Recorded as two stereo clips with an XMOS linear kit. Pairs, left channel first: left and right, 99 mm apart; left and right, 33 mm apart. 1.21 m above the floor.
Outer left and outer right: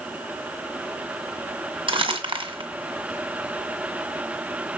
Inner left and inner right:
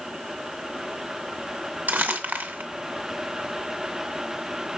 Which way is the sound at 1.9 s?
60° right (ahead or behind).